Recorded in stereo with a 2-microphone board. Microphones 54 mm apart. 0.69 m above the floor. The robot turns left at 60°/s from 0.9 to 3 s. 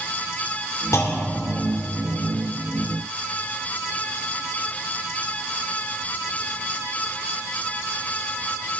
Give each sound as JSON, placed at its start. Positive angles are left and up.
{"t": 0.9, "sound": "a clunk", "azimuth_deg": 90, "distance_m": 2.0}